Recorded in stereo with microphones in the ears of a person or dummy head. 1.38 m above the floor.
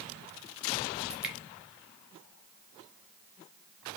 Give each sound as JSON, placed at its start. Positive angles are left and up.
{"t": 1.1, "sound": "dripping", "side_deg": -5, "distance_m": 0.9}